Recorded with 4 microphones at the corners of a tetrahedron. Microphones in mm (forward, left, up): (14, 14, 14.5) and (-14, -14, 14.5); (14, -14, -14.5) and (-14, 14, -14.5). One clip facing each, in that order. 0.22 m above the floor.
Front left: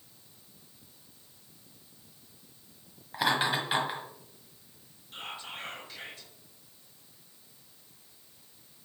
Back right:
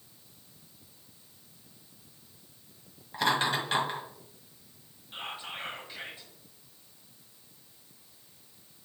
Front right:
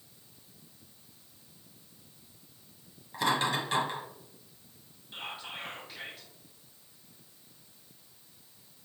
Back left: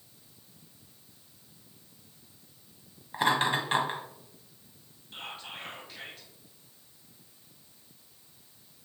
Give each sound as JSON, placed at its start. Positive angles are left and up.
{"t": 3.1, "sound": "laughter", "azimuth_deg": 120, "distance_m": 1.1}
{"t": 5.1, "sound": "whispering", "azimuth_deg": -125, "distance_m": 1.0}